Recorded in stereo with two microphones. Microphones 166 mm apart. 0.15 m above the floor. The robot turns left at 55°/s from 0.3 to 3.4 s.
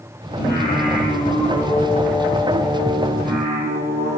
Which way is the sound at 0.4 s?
95° left.